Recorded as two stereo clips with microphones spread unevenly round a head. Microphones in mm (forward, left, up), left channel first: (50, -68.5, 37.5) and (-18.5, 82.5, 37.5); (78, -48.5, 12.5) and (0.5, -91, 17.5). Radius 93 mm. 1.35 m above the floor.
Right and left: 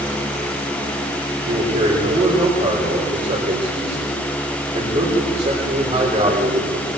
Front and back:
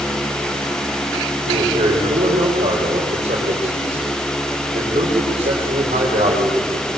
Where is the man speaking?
175° left, 4.5 m.